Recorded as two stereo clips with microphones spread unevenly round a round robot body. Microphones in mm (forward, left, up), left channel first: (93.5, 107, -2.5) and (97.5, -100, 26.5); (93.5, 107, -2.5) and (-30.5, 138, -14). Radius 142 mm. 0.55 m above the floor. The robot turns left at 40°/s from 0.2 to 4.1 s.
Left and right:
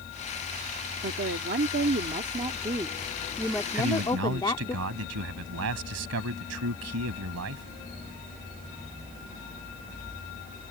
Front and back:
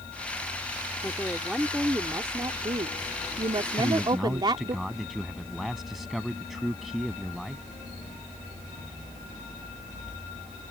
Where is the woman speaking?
90° right; by 4.8 s 145° left.